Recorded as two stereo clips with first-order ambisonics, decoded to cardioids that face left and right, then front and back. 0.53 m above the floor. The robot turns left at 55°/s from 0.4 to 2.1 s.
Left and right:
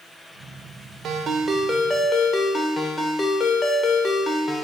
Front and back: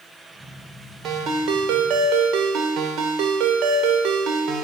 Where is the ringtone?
140° right, 0.9 m; by 4.7 s 165° left, 0.9 m.